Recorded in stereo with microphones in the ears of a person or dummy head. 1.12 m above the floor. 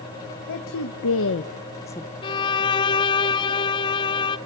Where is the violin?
25° left (ahead or behind), 0.6 m.